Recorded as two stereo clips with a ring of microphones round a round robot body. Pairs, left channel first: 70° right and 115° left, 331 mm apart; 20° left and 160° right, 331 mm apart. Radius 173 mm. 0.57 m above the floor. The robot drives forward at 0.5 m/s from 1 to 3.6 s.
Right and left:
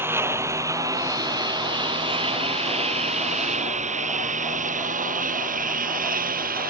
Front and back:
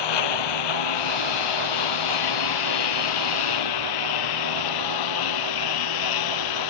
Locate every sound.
0.0 s a lawn mower: 30° left; by 6.7 s 45° left